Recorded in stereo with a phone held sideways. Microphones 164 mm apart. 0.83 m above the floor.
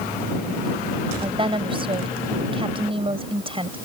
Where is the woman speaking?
35° right (ahead or behind).